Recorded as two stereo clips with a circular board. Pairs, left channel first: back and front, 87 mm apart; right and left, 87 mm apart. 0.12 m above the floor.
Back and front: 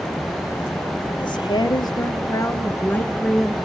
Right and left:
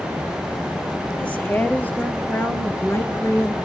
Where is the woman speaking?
160° right, 3 m; by 3.5 s 85° right, 1.5 m.